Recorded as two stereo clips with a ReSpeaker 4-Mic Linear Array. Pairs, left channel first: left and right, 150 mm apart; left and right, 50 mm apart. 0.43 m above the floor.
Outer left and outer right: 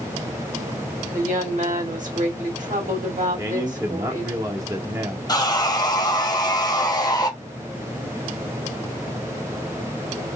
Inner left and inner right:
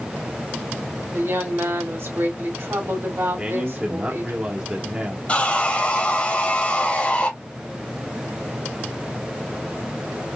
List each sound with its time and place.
1.1 s a woman speaking: 60° right (ahead or behind), 2 m
3.4 s a man speaking: 20° right (ahead or behind), 1.0 m
5.3 s sawing: 30° left (ahead or behind), 1.3 m